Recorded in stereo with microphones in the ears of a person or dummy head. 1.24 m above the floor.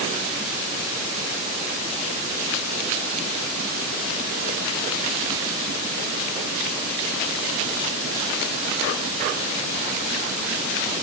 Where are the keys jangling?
No keys jangling in this recording.